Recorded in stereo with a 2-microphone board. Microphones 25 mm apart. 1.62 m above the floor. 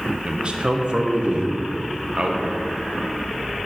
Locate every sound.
0.2 s a man speaking: 45° right (ahead or behind), 0.6 m